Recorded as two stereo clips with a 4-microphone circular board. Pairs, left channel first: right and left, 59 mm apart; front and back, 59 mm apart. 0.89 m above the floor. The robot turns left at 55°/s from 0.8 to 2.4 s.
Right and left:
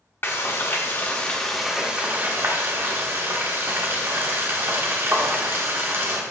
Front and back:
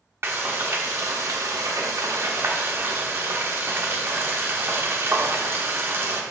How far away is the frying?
About 1.5 m.